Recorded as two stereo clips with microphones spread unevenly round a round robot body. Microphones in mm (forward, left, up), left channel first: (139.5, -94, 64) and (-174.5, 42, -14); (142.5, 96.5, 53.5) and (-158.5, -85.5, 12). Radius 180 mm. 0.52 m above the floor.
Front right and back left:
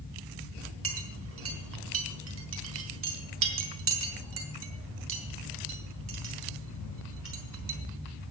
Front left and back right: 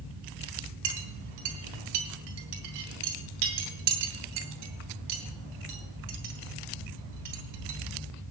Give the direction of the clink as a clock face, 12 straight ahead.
5 o'clock.